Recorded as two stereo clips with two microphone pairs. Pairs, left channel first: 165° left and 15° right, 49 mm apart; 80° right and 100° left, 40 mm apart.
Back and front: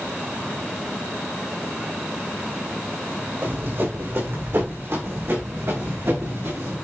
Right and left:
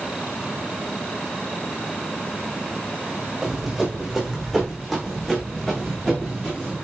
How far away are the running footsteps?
About 4 m.